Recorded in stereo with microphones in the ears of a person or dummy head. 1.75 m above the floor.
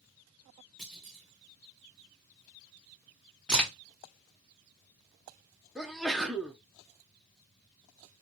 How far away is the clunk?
About 0.9 m.